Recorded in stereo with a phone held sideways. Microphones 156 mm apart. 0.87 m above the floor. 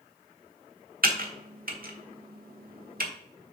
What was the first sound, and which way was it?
Typing on a keyboard, 70° right (ahead or behind).